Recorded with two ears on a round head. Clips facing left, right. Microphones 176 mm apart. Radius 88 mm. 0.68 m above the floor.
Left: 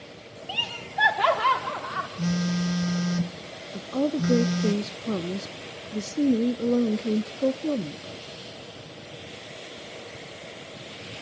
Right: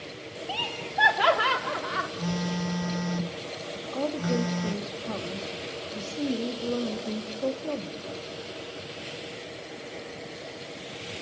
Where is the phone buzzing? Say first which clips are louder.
Left 5 dB; 25° left (ahead or behind), 1.2 m.